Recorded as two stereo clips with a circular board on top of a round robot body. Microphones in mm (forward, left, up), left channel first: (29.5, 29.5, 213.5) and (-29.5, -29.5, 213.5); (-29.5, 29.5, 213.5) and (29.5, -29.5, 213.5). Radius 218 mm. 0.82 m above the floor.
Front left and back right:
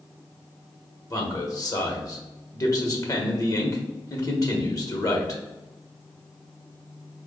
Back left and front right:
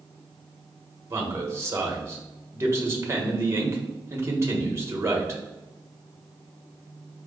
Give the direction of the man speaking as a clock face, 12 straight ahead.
12 o'clock.